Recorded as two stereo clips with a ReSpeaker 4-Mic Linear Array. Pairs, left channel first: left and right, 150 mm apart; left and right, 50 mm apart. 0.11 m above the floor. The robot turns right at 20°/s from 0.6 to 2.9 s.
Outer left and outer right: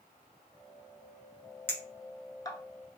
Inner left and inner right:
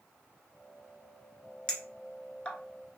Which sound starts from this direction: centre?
A clink, at 1.7 s.